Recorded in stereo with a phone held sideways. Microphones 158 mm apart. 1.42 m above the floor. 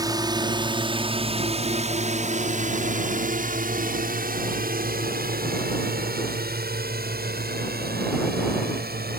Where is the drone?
25° right (ahead or behind); by 9.2 s 80° right.